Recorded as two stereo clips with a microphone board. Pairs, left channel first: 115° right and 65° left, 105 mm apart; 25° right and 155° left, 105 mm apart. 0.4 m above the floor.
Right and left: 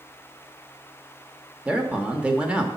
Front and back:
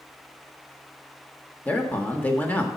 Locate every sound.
1.6 s a man speaking: 15° left, 0.8 m